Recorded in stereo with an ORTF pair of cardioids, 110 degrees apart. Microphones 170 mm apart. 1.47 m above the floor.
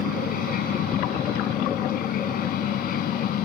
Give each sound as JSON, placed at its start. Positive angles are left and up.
{"t": 0.0, "sound": "a machine running", "azimuth_deg": 60}